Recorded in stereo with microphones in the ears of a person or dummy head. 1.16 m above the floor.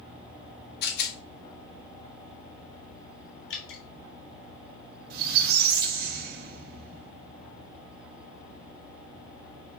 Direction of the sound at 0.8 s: 65° left (ahead or behind).